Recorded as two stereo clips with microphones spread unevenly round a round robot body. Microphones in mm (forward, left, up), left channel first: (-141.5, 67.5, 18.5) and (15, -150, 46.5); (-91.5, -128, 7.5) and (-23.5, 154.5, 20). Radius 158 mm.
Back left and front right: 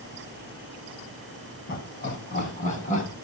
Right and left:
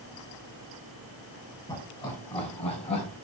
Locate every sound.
1.7 s laughter: straight behind, 7 m; by 3.1 s 170° right, 6 m